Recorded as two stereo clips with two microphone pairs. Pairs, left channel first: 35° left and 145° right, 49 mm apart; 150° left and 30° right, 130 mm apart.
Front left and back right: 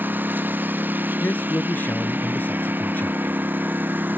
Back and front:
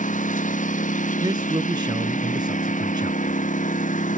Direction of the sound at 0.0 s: 165° left.